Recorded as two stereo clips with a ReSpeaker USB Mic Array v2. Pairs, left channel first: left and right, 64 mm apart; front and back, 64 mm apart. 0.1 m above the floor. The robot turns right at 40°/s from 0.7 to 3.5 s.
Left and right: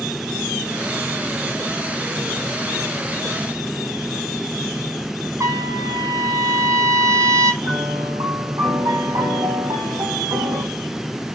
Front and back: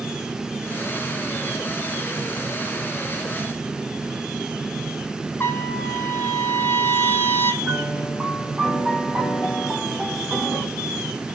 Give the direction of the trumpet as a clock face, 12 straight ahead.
2 o'clock.